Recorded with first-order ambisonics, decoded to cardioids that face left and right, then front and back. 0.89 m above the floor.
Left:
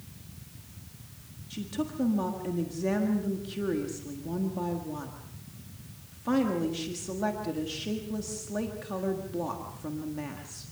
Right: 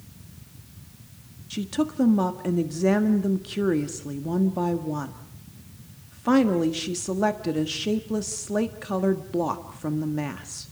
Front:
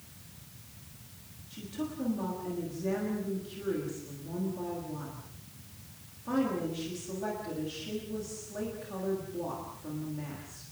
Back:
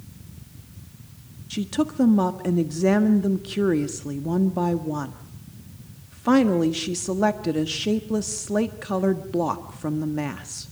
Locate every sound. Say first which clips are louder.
1.5 s a woman speaking: right 7 dB, back 13 dB; 150° right, 1.4 m